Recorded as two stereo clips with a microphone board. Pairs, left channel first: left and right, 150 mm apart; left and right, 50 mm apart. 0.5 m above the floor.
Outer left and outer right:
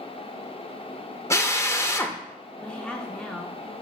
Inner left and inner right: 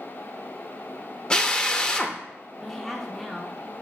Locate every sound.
1.3 s a drill: 20° left (ahead or behind), 0.6 m
2.6 s a woman speaking: 5° left (ahead or behind), 0.7 m